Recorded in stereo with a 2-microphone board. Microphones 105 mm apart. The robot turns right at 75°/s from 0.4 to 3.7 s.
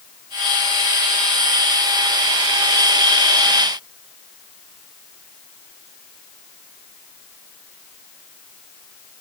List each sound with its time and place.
Only background noise.